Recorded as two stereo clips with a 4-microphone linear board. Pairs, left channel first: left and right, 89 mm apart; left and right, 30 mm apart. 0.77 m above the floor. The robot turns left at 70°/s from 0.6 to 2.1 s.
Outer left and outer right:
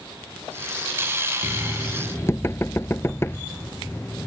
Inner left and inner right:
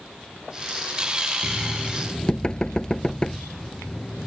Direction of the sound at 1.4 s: 20° right (ahead or behind).